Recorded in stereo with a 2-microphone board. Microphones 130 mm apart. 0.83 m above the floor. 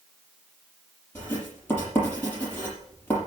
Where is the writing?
15° left (ahead or behind), 6 m.